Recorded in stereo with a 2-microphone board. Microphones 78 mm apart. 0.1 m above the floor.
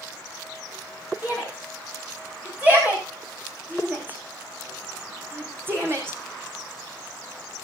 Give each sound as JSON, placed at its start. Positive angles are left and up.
{"t": 1.2, "sound": "a shout", "side_deg": -15, "distance_m": 9.0}